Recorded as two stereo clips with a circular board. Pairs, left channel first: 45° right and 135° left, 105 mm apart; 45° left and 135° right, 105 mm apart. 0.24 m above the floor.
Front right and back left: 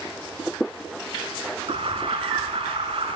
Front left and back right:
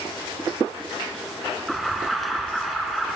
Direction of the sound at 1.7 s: 135° left.